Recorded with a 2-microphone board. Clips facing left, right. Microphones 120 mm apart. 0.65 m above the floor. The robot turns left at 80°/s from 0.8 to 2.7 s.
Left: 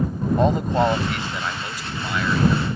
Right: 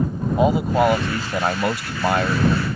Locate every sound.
0.4 s a man speaking: 10° right; by 2.6 s 155° right